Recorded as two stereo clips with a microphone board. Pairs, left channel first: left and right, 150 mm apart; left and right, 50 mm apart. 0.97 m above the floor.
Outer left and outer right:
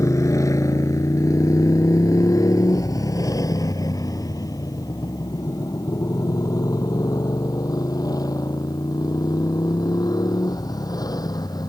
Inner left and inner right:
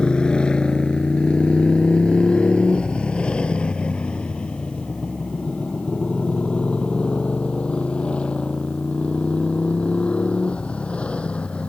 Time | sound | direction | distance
0.0 | a motorcycle | 20° left (ahead or behind) | ?